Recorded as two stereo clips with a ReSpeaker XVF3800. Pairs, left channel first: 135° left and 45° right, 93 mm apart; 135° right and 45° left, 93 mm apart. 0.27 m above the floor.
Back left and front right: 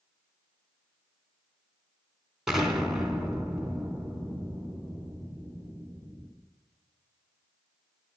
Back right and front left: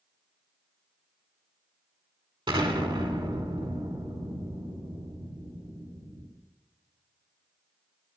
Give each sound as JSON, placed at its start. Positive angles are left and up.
{"t": 2.5, "sound": "an explosion", "azimuth_deg": 40, "distance_m": 3.0}